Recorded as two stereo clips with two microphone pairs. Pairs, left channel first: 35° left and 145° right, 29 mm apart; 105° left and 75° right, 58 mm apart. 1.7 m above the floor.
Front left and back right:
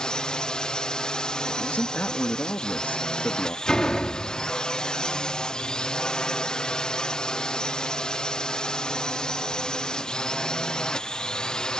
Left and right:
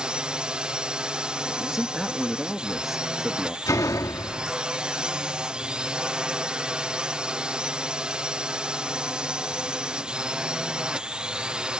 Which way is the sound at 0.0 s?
10° right.